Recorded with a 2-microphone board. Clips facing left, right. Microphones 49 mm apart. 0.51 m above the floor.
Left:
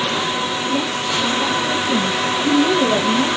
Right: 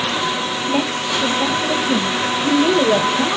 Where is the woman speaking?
55° right (ahead or behind), 3 m; by 3.4 s 25° right (ahead or behind), 2.5 m.